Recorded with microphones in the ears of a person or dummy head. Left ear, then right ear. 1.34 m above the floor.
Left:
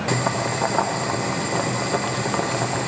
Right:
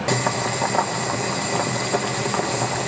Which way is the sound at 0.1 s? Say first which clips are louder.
Right 1 dB; 10° right (ahead or behind).